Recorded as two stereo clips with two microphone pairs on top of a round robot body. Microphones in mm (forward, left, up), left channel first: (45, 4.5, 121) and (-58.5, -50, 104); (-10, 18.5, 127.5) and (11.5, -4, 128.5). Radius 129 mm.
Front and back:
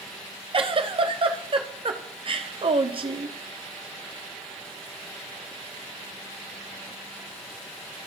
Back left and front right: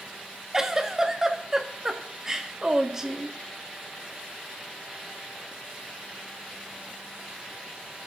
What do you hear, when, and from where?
0.5 s a giggle: 115° right, 1.7 m